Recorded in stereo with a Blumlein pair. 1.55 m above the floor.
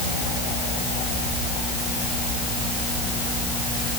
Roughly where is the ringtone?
I don't hear a ringtone.